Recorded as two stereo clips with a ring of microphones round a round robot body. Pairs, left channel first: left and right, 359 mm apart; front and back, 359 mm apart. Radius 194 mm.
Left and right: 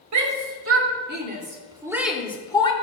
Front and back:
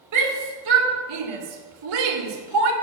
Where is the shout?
130° right, 2.5 m; by 2.7 s 165° left, 2 m.